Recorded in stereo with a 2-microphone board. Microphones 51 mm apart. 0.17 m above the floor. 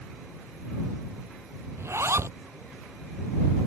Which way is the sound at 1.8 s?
60° right (ahead or behind).